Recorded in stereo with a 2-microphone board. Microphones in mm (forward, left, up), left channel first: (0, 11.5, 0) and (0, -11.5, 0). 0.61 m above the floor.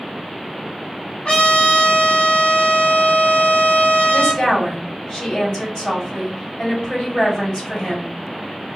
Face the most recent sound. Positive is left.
turn(degrees=45)  # may be behind; listen again after turning